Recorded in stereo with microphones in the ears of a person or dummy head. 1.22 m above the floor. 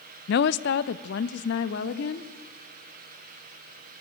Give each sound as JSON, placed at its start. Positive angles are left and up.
{"t": 0.3, "sound": "a woman speaking", "side_deg": 70, "distance_m": 0.8}